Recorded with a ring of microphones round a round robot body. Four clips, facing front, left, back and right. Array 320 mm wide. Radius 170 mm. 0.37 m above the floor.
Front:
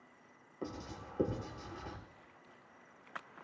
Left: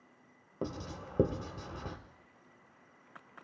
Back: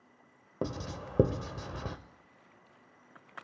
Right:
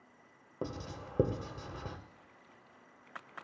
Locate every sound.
0.6 s writing: straight behind, 1.3 m